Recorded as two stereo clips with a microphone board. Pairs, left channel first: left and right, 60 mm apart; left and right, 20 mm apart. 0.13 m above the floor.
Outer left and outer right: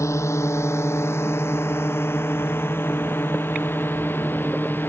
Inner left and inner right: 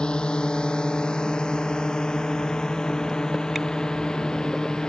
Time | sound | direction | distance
0.0 | a drone | 55° left (ahead or behind) | ?